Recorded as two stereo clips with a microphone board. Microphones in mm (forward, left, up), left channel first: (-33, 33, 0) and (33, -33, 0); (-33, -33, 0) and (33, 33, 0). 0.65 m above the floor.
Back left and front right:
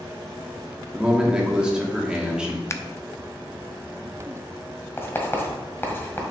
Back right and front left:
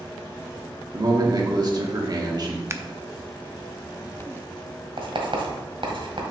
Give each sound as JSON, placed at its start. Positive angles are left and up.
{"t": 0.9, "sound": "a man speaking", "azimuth_deg": 35, "distance_m": 1.6}
{"t": 2.7, "sound": "scissors", "azimuth_deg": 90, "distance_m": 0.6}
{"t": 5.0, "sound": "writing", "azimuth_deg": 70, "distance_m": 1.5}